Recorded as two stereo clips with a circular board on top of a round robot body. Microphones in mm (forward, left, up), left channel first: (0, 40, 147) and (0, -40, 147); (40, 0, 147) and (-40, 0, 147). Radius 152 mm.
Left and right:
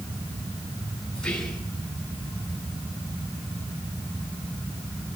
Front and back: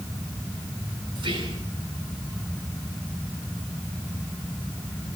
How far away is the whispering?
About 9.5 m.